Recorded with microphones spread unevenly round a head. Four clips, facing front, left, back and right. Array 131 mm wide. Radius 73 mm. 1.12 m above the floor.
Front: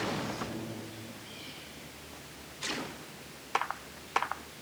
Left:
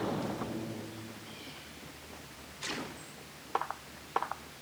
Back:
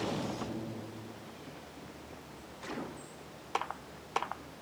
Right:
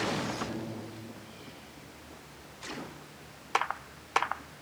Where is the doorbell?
I don't hear a doorbell.